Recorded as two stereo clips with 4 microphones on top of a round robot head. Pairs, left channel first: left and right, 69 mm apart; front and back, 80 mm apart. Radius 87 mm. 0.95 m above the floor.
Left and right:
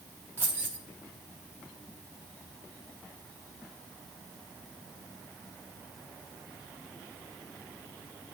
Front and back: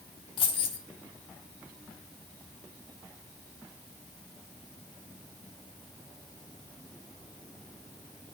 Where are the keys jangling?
20° right, 1.2 m.